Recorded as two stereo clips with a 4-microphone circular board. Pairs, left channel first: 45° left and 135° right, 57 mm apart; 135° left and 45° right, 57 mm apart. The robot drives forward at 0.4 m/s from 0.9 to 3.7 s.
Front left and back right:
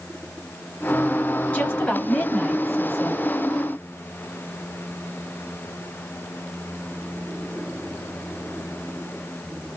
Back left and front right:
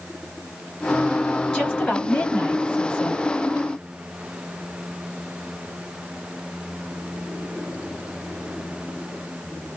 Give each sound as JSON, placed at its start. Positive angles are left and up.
{"t": 1.5, "sound": "a woman speaking", "azimuth_deg": 75, "distance_m": 1.8}